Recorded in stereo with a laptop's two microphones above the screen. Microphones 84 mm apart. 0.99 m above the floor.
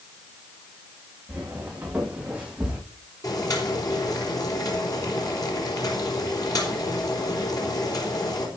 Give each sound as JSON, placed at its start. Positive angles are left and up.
{"t": 1.3, "sound": "footsteps", "side_deg": -20, "distance_m": 7.5}
{"t": 3.2, "sound": "boiling", "side_deg": 50, "distance_m": 3.5}